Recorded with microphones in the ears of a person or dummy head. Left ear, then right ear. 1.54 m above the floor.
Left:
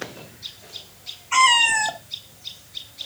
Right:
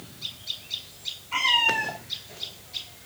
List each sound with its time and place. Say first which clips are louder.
1.3 s a cat meowing: left 6 dB; 60° left (ahead or behind), 1.4 m